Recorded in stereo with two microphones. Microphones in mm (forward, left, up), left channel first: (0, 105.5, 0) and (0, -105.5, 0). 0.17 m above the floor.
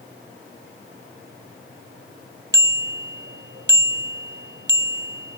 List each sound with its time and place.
2.5 s a bicycle bell: 55° right (ahead or behind)